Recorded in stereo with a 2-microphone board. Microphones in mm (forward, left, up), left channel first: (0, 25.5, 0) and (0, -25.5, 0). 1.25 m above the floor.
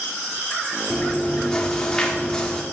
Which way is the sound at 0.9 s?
15° left (ahead or behind).